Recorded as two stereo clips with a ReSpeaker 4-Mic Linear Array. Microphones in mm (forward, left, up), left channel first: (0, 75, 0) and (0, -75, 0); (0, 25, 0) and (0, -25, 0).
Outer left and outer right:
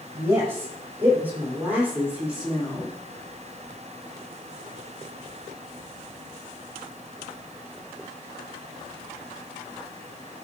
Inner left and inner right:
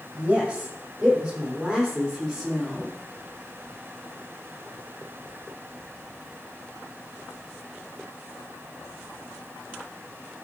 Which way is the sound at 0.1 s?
20° right (ahead or behind).